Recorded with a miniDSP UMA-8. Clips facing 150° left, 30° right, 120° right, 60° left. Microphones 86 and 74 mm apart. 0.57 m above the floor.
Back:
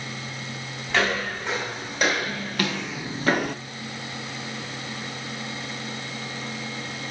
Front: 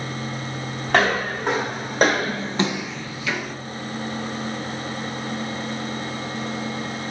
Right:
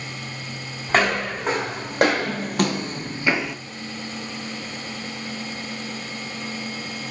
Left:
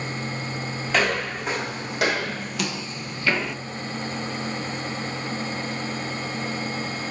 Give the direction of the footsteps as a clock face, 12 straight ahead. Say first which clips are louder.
Front 5 dB, right 3 dB; 2 o'clock.